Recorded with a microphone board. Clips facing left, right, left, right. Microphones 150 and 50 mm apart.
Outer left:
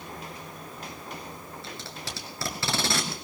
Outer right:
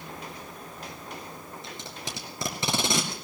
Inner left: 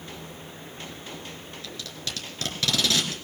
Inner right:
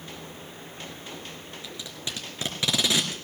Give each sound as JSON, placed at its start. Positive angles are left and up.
{"t": 1.6, "sound": "tape being pulled", "side_deg": -20, "distance_m": 2.0}